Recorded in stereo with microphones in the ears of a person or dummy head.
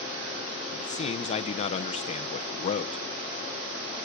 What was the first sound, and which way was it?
A man speaking, 40° left (ahead or behind).